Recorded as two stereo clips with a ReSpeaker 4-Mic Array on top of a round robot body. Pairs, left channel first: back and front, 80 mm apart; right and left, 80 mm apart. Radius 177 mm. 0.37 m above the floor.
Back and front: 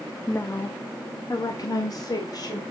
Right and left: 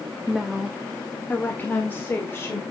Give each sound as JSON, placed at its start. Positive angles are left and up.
{"t": 0.3, "sound": "a woman speaking", "azimuth_deg": 165, "distance_m": 1.3}